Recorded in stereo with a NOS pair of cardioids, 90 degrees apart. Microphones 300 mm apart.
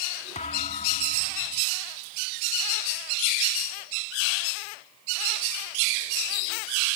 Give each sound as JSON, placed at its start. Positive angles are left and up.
{"t": 0.3, "sound": "a thud", "azimuth_deg": 25}